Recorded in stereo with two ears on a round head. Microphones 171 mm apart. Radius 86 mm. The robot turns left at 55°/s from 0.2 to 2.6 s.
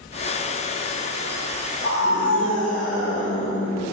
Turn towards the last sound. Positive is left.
turn(degrees=75)